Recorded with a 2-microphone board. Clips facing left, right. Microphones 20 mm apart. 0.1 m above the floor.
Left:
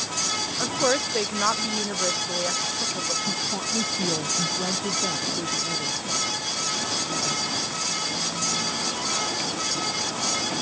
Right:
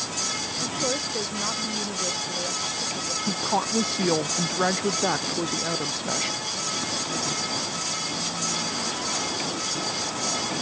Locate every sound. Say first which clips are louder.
0.6 s a woman speaking: left 5 dB; 45° left (ahead or behind); by 3.2 s 35° left (ahead or behind)
3.3 s a woman speaking: right 2 dB; 70° right (ahead or behind)